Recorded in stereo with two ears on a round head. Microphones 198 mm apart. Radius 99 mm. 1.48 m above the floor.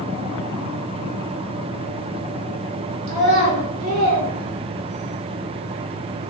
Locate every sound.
3.1 s a child speaking: 45° right (ahead or behind), 0.9 m